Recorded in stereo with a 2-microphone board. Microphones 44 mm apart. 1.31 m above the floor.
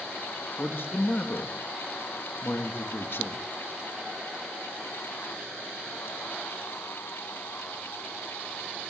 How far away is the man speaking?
About 2.5 m.